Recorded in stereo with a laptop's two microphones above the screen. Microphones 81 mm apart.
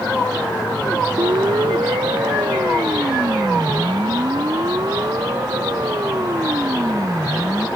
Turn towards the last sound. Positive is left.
turn(degrees=-40)  # may be behind; listen again after turning